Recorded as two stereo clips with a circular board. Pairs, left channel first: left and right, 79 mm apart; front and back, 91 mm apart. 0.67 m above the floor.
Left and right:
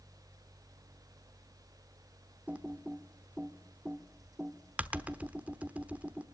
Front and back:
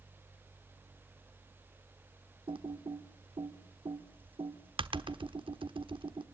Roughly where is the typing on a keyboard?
Behind.